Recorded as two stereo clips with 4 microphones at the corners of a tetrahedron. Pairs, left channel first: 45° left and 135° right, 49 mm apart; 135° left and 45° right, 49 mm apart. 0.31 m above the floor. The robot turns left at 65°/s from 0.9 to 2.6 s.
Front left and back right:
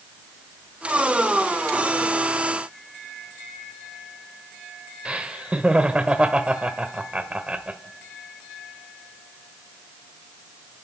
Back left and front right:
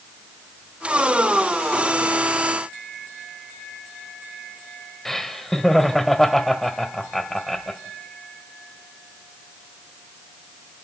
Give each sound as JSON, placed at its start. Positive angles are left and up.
{"t": 5.0, "sound": "laughter", "azimuth_deg": -155, "distance_m": 0.9}